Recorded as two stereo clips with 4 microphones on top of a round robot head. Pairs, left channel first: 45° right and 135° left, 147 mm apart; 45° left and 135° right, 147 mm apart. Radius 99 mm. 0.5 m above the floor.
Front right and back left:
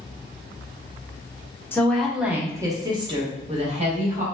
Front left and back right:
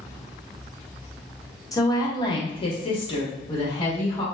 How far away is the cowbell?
I don't hear a cowbell.